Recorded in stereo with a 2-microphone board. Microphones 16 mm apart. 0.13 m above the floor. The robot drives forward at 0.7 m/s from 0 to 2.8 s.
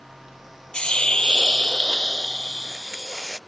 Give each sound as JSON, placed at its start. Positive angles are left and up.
{"t": 0.7, "sound": "a hiss", "side_deg": 55}